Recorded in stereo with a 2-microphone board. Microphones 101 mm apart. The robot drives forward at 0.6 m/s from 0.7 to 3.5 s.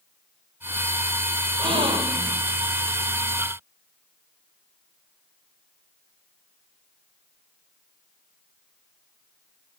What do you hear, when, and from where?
1.6 s a gasp: 60° right (ahead or behind), 1.9 m; by 2.4 s 50° right (ahead or behind), 2 m